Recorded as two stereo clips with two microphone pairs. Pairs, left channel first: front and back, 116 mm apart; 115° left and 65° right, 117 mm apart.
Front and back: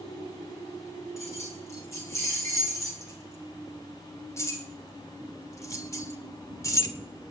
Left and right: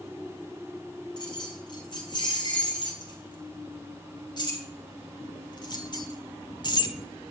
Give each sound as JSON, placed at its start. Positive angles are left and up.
{"t": 1.2, "sound": "keys jangling", "azimuth_deg": 65, "distance_m": 5.5}